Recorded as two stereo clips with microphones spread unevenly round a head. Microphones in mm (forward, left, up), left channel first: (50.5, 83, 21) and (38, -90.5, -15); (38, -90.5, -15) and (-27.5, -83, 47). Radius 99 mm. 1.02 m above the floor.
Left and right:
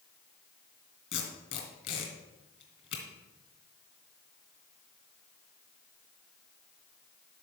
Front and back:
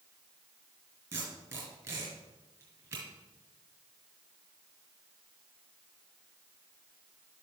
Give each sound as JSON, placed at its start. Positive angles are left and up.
{"t": 1.1, "sound": "tape being pulled", "azimuth_deg": 145, "distance_m": 2.5}